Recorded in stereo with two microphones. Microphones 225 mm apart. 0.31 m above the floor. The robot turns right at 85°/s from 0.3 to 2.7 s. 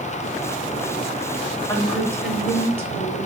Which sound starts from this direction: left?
A woman speaking, at 1.7 s.